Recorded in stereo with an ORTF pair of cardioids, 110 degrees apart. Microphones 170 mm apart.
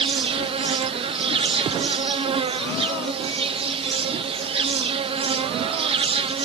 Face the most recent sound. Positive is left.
turn(degrees=-30)